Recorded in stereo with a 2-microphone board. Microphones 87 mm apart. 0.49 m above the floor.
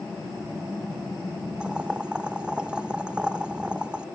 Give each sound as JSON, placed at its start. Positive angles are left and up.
{"t": 1.6, "sound": "boiling", "side_deg": -10, "distance_m": 0.6}